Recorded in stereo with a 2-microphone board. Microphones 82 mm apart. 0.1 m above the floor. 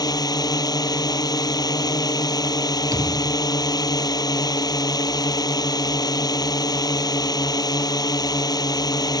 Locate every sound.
0.0 s a drone: 50° left (ahead or behind)
2.9 s a thud: 45° right (ahead or behind)